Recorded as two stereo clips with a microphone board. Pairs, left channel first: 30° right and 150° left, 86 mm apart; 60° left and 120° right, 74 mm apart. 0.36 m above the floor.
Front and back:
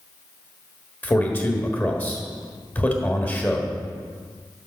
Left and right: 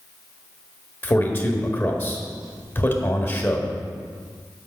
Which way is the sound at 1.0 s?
25° left.